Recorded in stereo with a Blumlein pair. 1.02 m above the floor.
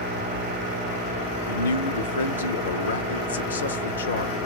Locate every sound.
1.5 s a man speaking: 70° left, 1.4 m